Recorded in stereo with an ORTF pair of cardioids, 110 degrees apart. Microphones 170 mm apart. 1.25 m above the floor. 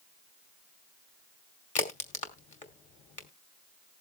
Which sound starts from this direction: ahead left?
A crack, at 1.8 s.